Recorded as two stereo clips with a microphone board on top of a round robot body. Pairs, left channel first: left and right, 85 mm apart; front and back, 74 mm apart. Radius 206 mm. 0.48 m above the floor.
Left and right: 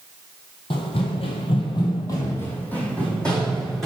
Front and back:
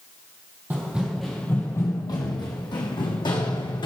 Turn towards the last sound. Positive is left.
turn(degrees=5)